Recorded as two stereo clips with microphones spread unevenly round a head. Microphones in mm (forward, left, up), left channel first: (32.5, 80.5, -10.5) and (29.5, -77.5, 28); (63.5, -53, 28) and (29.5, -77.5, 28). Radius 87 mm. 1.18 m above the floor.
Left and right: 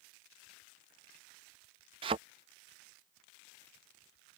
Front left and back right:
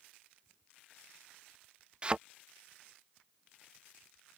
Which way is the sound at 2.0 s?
90° right.